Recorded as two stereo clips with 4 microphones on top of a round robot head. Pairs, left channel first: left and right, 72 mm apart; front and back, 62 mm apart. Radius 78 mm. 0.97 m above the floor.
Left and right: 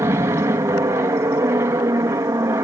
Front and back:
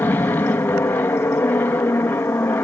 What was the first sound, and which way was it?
An aircraft, 50° right.